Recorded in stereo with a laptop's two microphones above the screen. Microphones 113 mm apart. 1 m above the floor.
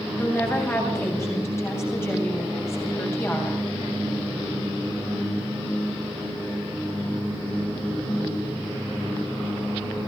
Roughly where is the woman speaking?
Left.